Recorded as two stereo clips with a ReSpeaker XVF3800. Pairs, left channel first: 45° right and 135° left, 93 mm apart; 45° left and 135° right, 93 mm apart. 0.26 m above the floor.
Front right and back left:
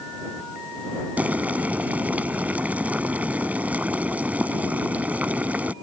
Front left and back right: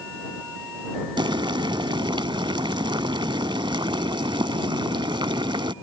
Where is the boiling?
155° right.